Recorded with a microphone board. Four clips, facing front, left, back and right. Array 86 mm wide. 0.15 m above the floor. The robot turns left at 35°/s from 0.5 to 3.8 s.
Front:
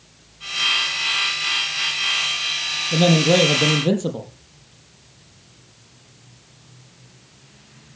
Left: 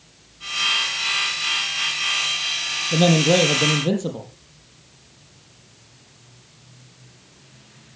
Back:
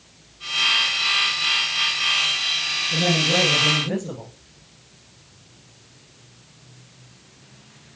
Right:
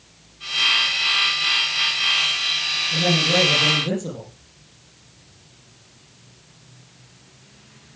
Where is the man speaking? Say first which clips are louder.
Left 5 dB, front 7 dB; 55° left, 5.5 m; by 4.3 s 25° left, 5.5 m.